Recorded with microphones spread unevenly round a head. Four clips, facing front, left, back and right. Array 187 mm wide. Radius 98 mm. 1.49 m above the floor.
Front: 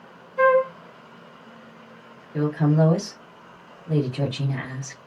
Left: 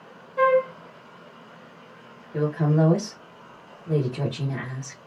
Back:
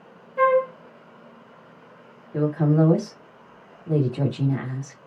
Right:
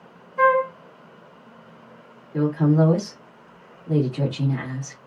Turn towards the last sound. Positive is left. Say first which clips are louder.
# right 3 dB, back 1 dB
turn(degrees=165)